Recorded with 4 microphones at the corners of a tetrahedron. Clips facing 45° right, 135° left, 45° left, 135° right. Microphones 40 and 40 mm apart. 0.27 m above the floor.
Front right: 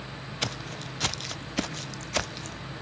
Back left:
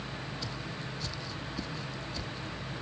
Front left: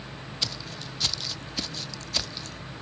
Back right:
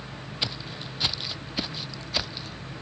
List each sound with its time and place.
0.4 s footsteps: 65° right; by 2.6 s 60° right